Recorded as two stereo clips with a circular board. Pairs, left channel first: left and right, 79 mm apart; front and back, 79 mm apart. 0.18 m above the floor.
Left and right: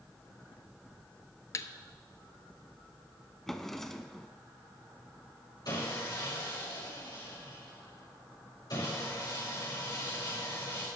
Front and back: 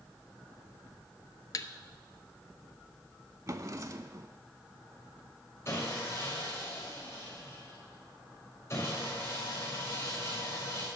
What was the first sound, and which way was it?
A thud, 40° left.